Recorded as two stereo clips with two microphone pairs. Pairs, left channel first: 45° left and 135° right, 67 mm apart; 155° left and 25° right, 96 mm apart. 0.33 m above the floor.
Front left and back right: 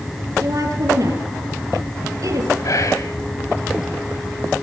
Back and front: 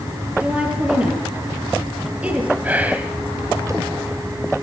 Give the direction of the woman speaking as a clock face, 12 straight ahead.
3 o'clock.